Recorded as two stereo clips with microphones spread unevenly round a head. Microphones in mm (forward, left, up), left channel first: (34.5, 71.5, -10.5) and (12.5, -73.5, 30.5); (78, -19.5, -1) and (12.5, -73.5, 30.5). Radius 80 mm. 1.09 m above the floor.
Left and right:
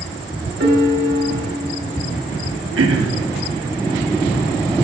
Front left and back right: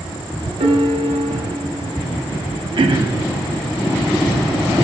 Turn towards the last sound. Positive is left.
turn(degrees=-115)